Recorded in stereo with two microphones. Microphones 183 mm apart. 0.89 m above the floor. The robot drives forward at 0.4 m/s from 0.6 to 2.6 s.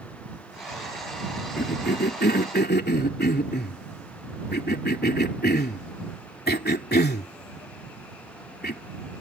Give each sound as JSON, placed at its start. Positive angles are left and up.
{"t": 1.6, "sound": "a cough", "side_deg": 65}